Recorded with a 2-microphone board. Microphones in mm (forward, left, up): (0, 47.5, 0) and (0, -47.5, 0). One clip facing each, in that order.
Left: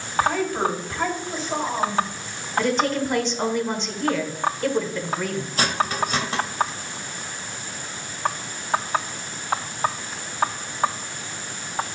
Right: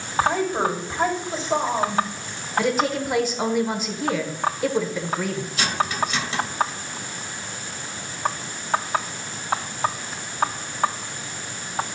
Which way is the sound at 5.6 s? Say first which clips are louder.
Left 1 dB; 45° left (ahead or behind).